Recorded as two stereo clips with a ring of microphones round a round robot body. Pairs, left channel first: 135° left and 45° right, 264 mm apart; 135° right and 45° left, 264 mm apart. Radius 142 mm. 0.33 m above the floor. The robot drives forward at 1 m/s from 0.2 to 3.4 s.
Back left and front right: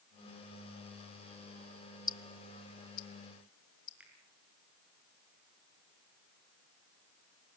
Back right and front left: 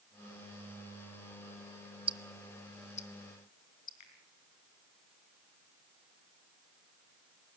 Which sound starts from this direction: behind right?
A finger snap, at 4.0 s.